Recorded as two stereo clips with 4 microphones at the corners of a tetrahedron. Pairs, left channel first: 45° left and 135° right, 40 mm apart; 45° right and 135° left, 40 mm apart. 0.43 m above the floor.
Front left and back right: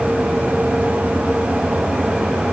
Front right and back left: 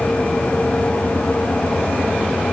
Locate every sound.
Only background noise.